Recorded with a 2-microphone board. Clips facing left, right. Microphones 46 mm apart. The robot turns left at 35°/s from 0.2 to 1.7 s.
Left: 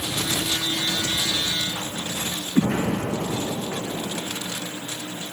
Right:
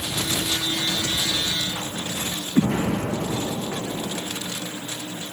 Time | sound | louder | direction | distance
2.5 | an explosion | even | 45° left (ahead or behind) | 7 m